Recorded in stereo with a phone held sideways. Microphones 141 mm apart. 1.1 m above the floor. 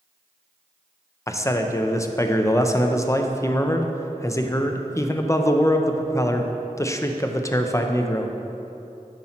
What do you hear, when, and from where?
1.3 s a man speaking: 20° left (ahead or behind), 0.5 m